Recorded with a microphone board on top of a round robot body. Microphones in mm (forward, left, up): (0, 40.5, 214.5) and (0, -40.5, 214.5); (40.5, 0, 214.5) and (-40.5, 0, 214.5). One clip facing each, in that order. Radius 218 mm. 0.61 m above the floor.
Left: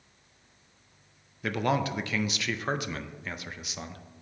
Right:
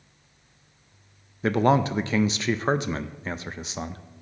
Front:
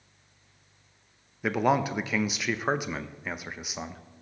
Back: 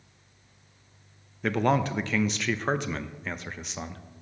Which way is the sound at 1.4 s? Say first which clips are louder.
Right 7 dB, even; 75° right.